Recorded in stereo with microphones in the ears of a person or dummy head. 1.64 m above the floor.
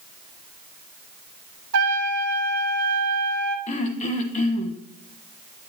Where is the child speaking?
No child speaking in this recording.